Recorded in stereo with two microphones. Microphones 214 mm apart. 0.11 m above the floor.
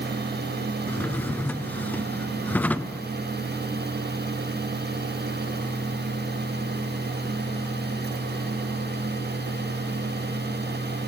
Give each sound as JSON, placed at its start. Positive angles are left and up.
{"t": 0.9, "sound": "a drawer", "side_deg": 10, "distance_m": 0.8}